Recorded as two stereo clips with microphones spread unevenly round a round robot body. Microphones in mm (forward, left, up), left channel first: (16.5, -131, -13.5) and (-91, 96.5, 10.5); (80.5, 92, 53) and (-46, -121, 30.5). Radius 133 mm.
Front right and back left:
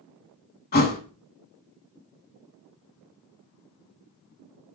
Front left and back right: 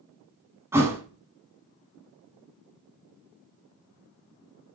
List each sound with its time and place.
0.7 s a thud: 40° right, 0.6 m